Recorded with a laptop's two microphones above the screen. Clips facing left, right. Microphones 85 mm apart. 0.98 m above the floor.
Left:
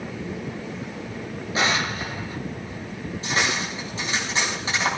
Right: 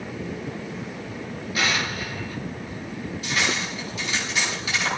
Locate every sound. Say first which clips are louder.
1.6 s an explosion: left 2 dB; 30° left (ahead or behind), 2 m
3.2 s cutlery clinking: left 2 dB; 35° left (ahead or behind), 5.5 m